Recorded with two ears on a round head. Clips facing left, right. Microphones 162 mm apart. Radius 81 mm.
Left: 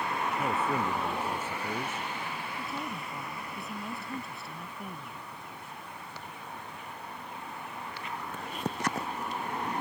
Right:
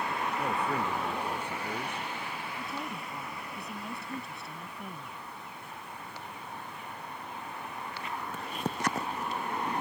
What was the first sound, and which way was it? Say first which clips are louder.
A man speaking: left 1 dB; 5° left (ahead or behind).